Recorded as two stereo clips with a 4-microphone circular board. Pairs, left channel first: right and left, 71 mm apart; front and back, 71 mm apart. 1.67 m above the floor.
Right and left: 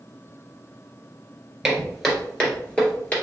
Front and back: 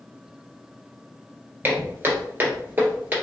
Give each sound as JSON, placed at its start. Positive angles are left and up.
{"t": 1.6, "sound": "footsteps", "azimuth_deg": 175, "distance_m": 1.9}